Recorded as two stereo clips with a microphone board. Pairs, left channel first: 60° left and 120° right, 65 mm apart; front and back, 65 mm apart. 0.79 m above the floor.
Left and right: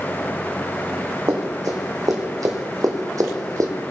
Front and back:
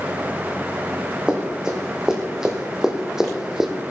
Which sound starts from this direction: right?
Running footsteps, at 1.3 s.